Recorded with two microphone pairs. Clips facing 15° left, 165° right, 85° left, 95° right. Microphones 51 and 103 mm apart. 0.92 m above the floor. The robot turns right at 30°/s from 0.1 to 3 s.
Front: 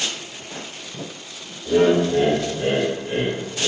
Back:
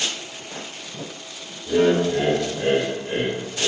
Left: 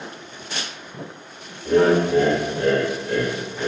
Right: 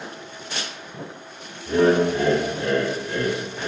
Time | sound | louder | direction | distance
1.6 | laughter | front 2 dB, left 1 dB | 90° left | 1.3 m